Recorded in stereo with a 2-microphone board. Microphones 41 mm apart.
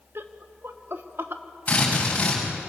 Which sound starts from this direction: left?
A drill, at 1.7 s.